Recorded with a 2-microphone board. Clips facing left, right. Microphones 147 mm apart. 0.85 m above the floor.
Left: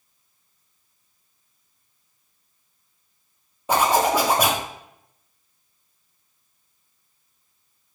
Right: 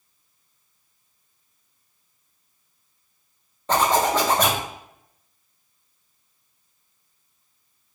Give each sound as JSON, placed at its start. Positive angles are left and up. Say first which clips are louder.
{"t": 3.7, "sound": "a zipper", "louder": "left 1 dB", "side_deg": 10, "distance_m": 0.7}